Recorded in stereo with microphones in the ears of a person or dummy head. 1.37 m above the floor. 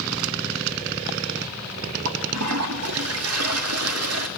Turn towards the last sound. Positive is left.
turn(degrees=-85)